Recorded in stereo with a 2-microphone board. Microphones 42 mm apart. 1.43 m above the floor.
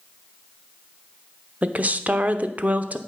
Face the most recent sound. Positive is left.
turn(degrees=-40)  # may be behind; listen again after turning